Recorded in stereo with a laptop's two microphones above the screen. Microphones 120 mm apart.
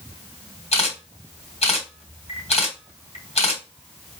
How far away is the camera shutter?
About 1.4 m.